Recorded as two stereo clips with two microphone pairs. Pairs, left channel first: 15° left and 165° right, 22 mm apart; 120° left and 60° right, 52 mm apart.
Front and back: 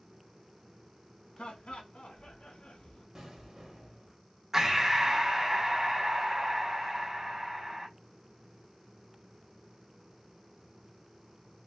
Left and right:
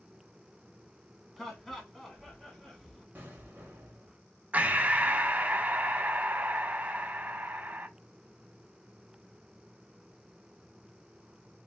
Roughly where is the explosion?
Right.